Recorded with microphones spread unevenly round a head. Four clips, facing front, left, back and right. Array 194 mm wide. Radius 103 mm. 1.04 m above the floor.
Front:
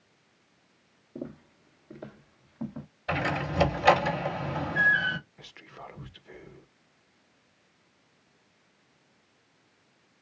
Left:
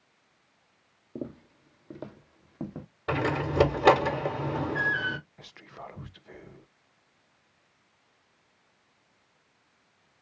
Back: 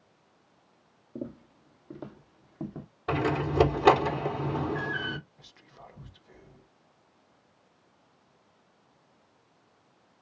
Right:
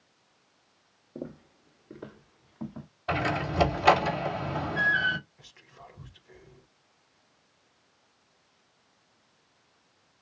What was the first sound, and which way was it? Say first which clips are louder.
Footsteps: left 2 dB, back 1 dB; 105° left.